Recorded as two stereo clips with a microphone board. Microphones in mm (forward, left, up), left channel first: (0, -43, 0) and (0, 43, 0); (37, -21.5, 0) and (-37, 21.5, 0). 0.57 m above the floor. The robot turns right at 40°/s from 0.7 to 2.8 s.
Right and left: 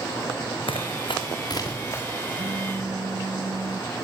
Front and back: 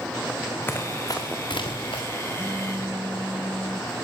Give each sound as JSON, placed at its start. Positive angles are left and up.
{"t": 0.7, "sound": "running footsteps", "azimuth_deg": -90, "distance_m": 3.0}
{"t": 2.4, "sound": "a phone buzzing", "azimuth_deg": 75, "distance_m": 1.7}